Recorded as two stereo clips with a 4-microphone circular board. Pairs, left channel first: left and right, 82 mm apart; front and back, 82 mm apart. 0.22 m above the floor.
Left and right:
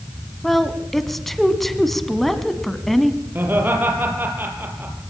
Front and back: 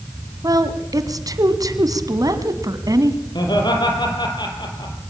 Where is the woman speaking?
Straight behind, 1.7 m.